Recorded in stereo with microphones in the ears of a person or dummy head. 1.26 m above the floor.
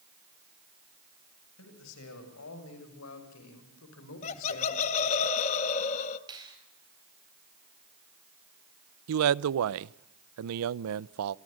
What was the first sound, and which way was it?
A man speaking, 85° left.